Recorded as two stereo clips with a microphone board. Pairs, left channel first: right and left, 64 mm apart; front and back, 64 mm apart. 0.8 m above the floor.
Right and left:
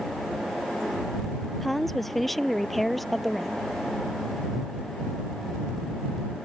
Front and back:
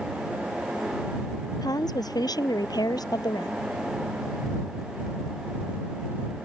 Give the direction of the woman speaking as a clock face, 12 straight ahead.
12 o'clock.